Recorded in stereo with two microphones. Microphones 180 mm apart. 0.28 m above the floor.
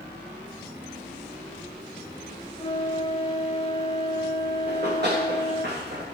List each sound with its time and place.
2.6 s a flute: 35° left (ahead or behind), 0.8 m
4.7 s running footsteps: 70° right (ahead or behind), 8 m